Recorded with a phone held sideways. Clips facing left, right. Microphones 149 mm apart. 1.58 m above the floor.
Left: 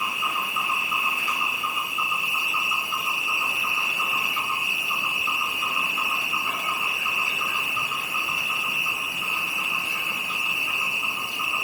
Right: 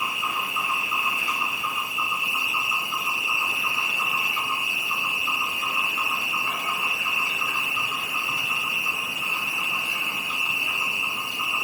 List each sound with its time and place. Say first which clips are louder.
0.0 s an insect: even; 25° right (ahead or behind), 1.2 m